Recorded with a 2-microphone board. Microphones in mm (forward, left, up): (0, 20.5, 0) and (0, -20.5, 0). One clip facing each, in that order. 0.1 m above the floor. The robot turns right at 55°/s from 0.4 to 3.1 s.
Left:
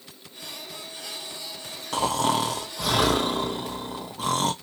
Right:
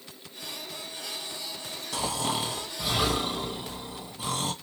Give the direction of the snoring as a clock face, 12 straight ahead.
10 o'clock.